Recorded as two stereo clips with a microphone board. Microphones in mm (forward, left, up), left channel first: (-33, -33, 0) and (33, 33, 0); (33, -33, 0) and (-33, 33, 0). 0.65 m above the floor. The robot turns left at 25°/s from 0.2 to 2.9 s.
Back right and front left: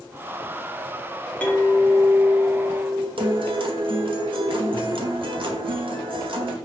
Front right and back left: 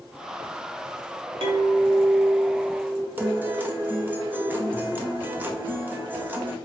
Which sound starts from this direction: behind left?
A clink, at 1.4 s.